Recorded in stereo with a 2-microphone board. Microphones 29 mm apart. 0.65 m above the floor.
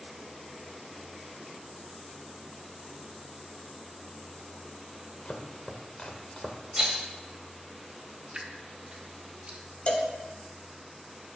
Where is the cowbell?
40° left (ahead or behind), 0.8 m.